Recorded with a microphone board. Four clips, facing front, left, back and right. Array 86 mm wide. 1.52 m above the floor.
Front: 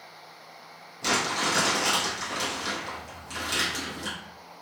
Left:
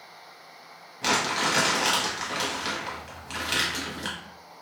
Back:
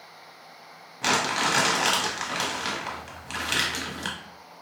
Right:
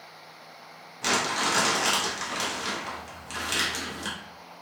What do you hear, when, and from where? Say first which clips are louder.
1.0 s crumpling: left 1 dB, back 2 dB; 165° left, 0.8 m